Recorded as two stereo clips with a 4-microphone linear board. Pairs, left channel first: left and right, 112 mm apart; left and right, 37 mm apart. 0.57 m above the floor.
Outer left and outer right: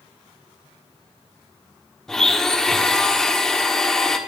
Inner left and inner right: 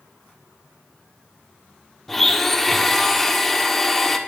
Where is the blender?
5° left (ahead or behind), 1.7 m.